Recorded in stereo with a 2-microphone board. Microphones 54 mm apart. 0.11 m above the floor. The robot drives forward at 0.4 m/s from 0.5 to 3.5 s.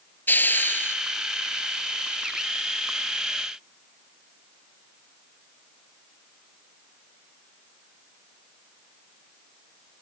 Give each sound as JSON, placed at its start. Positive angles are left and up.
{"t": 0.3, "sound": "a hiss", "side_deg": 40, "distance_m": 0.6}